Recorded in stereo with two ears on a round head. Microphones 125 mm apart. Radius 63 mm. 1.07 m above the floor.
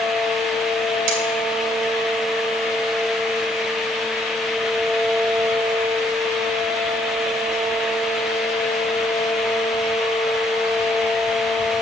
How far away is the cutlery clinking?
About 2.5 m.